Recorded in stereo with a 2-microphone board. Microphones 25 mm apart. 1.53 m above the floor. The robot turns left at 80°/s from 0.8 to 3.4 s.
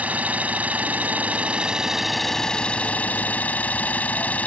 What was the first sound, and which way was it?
An engine running, 70° right.